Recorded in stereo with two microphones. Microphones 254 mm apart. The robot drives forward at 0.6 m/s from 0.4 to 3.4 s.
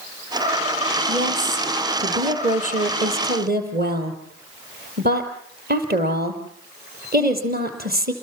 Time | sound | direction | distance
1.1 | a woman speaking | 30° right (ahead or behind) | 5.5 m